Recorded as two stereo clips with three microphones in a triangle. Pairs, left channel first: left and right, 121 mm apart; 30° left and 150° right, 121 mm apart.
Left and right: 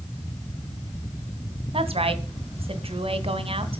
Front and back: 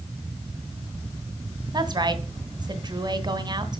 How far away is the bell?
I don't hear a bell.